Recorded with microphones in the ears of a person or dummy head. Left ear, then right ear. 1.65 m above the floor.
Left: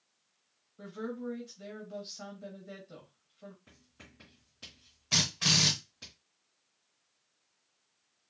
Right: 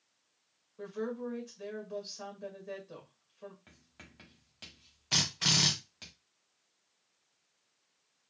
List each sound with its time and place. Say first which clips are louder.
0.8 s a woman speaking: right 2 dB; 25° right (ahead or behind), 1.9 m
3.7 s writing: right 1 dB; 35° right (ahead or behind), 1.7 m
5.1 s a drill: left 1 dB; 10° right (ahead or behind), 1.1 m